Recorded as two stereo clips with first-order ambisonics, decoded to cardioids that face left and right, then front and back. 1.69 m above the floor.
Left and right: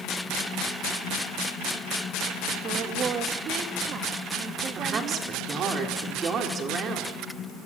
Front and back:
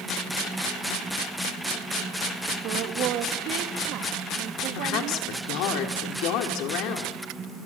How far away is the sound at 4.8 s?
About 4.5 m.